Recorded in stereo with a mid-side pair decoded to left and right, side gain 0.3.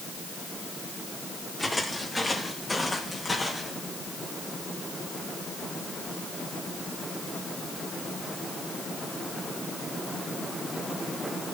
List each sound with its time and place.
1.6 s footsteps: 20° left, 6.5 m; by 3.7 s 45° left, 6.5 m